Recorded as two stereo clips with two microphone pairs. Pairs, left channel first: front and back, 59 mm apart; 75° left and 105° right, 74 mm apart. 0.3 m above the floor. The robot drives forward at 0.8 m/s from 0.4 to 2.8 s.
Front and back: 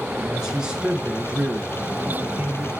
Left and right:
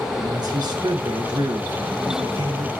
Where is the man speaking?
100° right, 5 m; by 2.7 s 120° right, 5.5 m.